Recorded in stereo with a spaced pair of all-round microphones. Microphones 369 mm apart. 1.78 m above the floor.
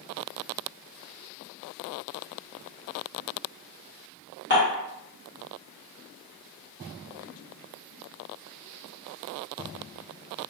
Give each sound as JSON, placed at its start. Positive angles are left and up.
{"t": 4.5, "sound": "dishes clattering", "side_deg": 30, "distance_m": 1.3}